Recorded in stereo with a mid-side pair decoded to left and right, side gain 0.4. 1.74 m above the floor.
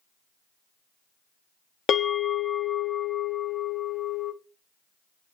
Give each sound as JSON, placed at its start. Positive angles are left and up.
{"t": 1.9, "sound": "a bell", "azimuth_deg": 65, "distance_m": 0.5}